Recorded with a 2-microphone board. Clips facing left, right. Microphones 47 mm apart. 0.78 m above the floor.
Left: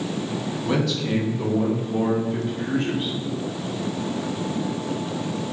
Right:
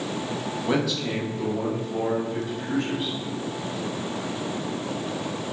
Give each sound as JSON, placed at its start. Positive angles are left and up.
{"t": 0.6, "sound": "a man speaking", "side_deg": -10, "distance_m": 0.9}